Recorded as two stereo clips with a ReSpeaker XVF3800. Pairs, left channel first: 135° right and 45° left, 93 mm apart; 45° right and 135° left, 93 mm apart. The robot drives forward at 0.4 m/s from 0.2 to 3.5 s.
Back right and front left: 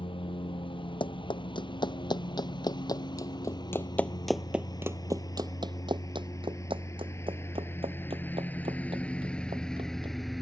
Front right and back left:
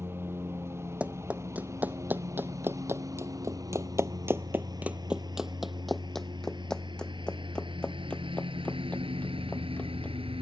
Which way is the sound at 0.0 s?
160° right.